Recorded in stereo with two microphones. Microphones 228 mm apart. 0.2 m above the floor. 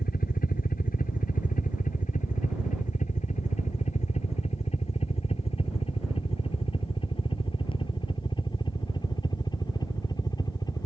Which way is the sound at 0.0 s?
40° left (ahead or behind).